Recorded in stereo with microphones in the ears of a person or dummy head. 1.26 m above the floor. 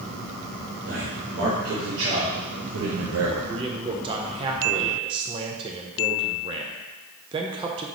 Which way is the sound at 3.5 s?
20° right (ahead or behind).